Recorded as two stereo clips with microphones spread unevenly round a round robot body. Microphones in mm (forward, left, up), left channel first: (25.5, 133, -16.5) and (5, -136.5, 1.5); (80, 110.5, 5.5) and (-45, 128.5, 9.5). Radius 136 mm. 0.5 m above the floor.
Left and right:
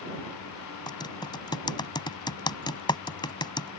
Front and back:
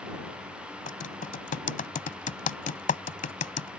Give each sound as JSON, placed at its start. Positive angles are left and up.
{"t": 0.9, "sound": "typing on a keyboard", "azimuth_deg": 10}